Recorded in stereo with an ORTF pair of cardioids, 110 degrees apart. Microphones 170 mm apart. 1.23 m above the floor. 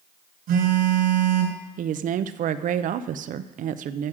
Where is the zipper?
I don't hear a zipper.